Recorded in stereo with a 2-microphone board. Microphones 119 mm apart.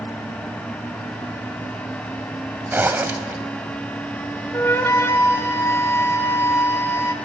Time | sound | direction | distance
2.7 | a zipper | 15° right (ahead or behind) | 0.7 m
4.5 | a flute | 25° left (ahead or behind) | 0.6 m